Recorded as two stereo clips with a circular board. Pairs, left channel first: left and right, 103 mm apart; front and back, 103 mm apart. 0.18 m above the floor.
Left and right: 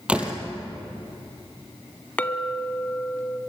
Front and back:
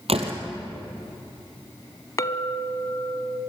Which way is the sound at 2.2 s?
25° left.